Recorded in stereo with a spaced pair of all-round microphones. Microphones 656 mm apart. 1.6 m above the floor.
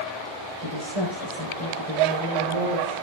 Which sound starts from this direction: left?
A woman speaking, at 0.6 s.